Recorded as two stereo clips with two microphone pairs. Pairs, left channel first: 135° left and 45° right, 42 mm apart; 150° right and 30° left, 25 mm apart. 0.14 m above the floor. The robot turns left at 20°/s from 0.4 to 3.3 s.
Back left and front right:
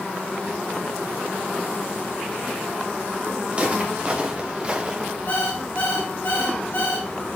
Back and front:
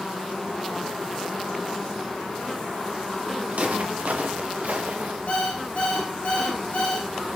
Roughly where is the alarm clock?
Behind.